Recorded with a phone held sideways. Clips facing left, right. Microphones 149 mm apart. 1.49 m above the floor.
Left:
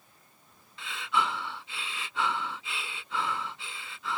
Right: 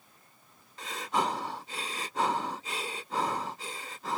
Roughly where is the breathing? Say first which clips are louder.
Even; right.